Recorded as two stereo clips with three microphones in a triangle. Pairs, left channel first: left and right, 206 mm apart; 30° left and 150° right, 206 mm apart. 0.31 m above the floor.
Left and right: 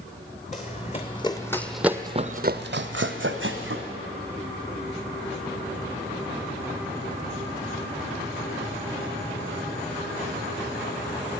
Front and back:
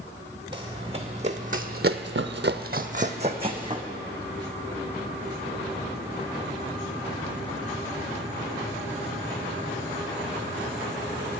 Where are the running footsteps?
145° left, 1.2 m; by 3.9 s 80° right, 1.2 m.